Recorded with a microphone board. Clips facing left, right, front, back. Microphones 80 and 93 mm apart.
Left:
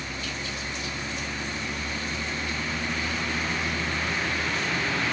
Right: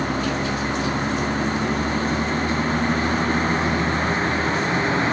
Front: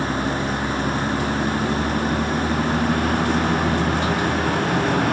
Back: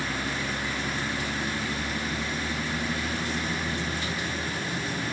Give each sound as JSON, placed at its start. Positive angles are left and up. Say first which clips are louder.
{"t": 0.0, "sound": "a vehicle", "louder": "right 12 dB, front 9 dB", "azimuth_deg": -50}